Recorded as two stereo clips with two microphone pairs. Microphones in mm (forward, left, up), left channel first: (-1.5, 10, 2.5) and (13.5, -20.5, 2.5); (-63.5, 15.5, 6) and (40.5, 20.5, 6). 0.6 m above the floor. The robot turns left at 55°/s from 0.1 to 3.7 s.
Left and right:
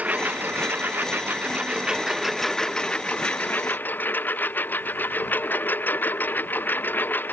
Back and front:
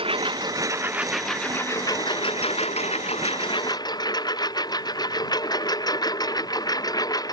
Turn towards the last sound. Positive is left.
turn(degrees=130)